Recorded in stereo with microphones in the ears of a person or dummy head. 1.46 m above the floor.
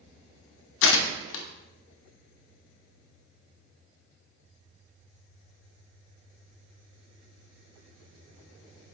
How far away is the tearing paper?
About 0.6 m.